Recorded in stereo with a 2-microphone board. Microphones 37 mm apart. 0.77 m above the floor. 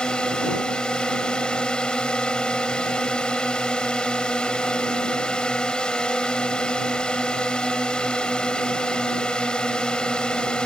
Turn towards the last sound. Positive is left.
turn(degrees=20)  # may be behind; listen again after turning